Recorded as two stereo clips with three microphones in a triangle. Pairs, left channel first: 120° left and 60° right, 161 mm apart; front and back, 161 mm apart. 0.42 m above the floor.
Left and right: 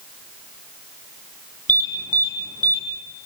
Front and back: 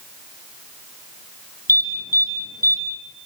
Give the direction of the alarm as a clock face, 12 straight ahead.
7 o'clock.